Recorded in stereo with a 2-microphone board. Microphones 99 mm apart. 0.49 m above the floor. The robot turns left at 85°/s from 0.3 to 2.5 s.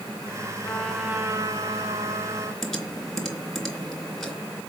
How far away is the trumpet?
About 3.5 m.